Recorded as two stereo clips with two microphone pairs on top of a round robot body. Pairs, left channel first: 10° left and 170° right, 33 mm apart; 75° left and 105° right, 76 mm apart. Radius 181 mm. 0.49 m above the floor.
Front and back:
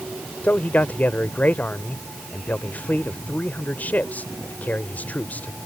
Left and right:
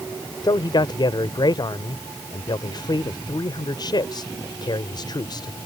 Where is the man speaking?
45° left.